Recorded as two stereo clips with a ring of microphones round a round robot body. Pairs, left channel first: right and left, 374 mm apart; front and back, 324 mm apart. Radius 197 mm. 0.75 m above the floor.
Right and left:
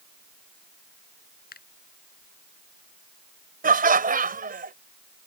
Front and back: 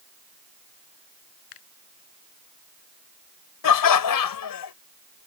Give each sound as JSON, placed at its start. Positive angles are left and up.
{"t": 1.5, "sound": "a finger snap", "azimuth_deg": -25}
{"t": 3.6, "sound": "laughter", "azimuth_deg": 20}